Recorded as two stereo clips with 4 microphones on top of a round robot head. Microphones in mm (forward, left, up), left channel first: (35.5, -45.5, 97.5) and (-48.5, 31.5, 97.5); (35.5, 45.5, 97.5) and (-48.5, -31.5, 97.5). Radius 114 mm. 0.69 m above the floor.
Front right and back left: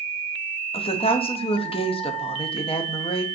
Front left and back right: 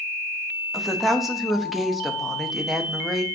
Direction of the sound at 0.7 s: 50° right.